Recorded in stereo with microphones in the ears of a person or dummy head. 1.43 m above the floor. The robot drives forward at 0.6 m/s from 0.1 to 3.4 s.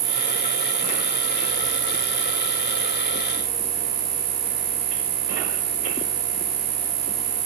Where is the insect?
75° right (ahead or behind), 5.5 m; by 7.5 s 60° right (ahead or behind), 6 m.